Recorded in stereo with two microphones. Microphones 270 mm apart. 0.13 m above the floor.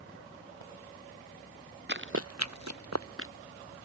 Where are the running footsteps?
40° right (ahead or behind); by 3.3 s 50° right (ahead or behind).